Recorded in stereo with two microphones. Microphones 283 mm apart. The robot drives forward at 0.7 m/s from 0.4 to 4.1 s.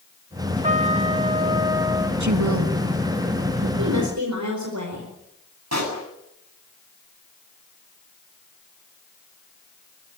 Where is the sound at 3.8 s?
80° right, 4.5 m.